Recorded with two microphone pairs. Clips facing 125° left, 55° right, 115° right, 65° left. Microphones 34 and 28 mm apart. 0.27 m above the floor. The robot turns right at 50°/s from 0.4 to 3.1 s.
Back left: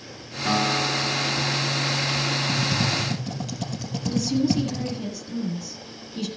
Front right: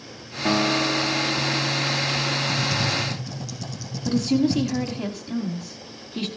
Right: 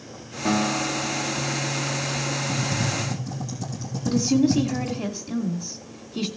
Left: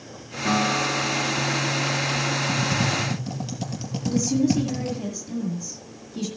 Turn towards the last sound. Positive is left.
turn(degrees=-65)